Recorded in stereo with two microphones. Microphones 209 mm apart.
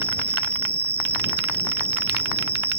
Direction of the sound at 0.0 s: 30° right (ahead or behind).